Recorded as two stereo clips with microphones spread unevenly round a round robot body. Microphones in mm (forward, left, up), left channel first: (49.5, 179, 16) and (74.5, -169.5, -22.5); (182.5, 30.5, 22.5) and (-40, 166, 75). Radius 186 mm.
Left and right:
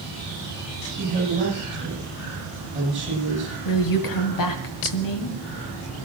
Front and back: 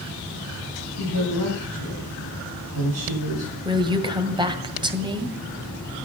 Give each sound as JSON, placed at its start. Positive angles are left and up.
{"t": 1.0, "sound": "a woman speaking", "azimuth_deg": -160, "distance_m": 7.5}
{"t": 3.6, "sound": "a woman speaking", "azimuth_deg": 70, "distance_m": 2.0}